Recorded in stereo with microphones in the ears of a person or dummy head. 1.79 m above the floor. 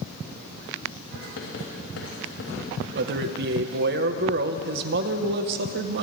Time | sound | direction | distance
1.1 | writing | 85° left | 6.5 m
2.9 | a man speaking | 60° right (ahead or behind) | 1.5 m